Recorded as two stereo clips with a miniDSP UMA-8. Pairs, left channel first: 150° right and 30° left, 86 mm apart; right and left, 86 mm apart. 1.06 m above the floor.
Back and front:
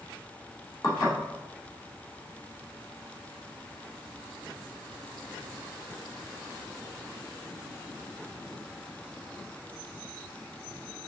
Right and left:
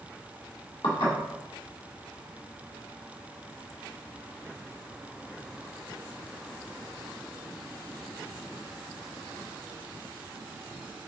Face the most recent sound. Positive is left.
turn(degrees=-105)